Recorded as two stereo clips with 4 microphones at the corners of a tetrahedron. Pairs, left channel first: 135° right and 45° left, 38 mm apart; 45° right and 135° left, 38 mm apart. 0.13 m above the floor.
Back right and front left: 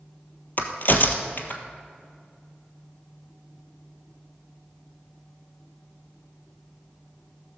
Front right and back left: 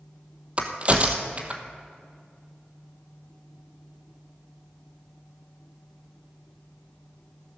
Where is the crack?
170° right, 1.2 m.